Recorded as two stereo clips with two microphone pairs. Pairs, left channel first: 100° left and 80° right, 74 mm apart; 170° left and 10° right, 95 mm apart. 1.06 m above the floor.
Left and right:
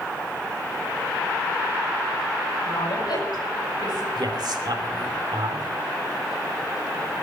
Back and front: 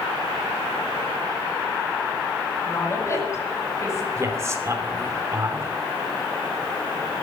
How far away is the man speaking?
About 3 m.